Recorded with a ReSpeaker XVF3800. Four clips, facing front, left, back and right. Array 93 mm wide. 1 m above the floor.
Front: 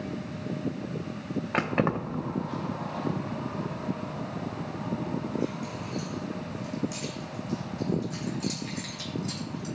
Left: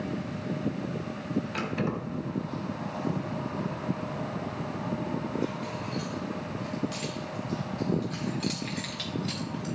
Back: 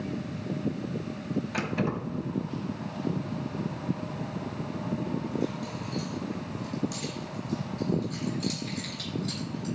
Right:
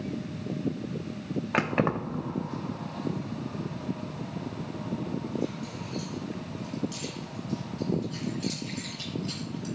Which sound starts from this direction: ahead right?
Keys jangling, at 1.5 s.